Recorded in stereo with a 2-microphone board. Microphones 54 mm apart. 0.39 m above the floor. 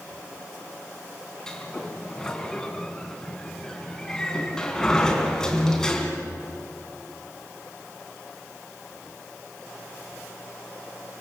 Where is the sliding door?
10° left (ahead or behind), 3 m.